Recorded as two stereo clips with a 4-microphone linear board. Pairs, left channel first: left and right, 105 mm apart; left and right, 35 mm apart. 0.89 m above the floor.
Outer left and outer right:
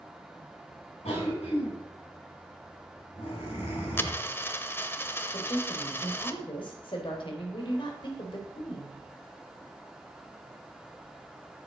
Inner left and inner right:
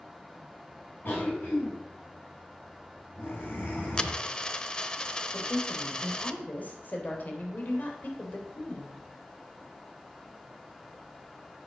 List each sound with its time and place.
1.1 s a cough: 80° left, 7 m
4.0 s a dropped coin: 20° left (ahead or behind), 0.7 m
5.3 s a woman speaking: 55° left (ahead or behind), 3 m